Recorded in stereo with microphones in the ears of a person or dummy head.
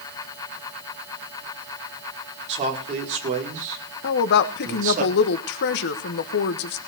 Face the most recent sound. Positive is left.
turn(degrees=60)  # may be behind; listen again after turning